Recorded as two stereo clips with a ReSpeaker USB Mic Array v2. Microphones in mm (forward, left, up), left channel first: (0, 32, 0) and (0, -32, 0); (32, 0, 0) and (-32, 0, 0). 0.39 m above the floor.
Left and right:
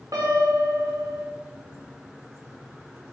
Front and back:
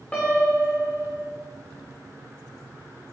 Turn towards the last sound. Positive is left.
turn(degrees=-70)